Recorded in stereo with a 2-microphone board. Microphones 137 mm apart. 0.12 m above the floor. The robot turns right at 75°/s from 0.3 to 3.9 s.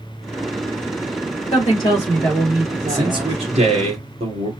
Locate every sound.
1.5 s a woman speaking: 120° left, 3 m; by 3.4 s 100° right, 3 m
2.9 s a man speaking: 150° right, 2.5 m; by 4.5 s 75° right, 2.5 m